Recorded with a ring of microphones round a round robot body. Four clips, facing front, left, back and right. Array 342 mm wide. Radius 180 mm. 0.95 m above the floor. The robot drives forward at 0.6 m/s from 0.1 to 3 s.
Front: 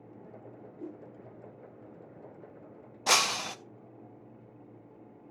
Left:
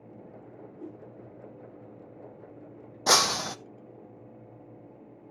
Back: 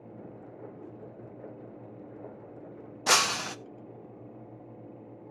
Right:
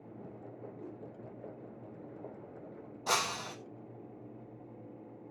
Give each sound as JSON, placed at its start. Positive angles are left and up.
{"t": 0.8, "sound": "a whoosh", "azimuth_deg": 35, "distance_m": 5.0}
{"t": 3.1, "sound": "breaking glass", "azimuth_deg": 105, "distance_m": 0.5}